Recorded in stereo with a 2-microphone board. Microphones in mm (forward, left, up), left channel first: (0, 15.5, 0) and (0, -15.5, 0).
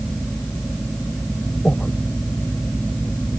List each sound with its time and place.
1.6 s breathing: 30° left (ahead or behind)